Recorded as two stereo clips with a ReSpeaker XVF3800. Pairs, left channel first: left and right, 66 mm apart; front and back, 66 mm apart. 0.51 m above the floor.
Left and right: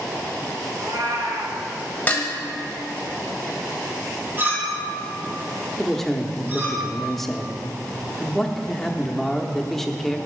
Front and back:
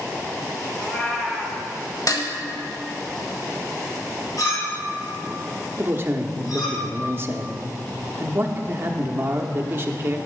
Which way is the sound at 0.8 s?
85° right.